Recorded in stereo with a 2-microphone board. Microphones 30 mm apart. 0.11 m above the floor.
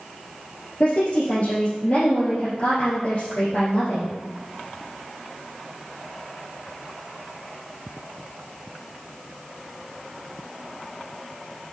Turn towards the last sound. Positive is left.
turn(degrees=45)  # may be behind; listen again after turning